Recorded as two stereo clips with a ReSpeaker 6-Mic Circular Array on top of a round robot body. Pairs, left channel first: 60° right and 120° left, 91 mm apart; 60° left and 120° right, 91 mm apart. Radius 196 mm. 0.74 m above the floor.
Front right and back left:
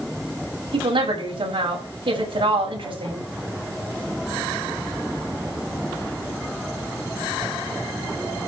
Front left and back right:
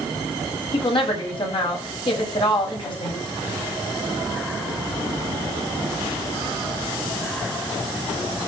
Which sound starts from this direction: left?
A woman speaking, at 0.7 s.